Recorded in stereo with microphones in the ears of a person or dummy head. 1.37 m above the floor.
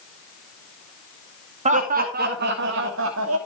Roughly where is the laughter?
Right.